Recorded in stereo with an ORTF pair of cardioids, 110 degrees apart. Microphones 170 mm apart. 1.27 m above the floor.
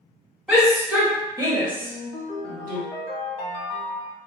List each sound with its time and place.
0.5 s a shout: straight ahead, 1.4 m; by 2.8 s 65° right, 1.0 m
1.8 s a ringtone: 65° left, 1.4 m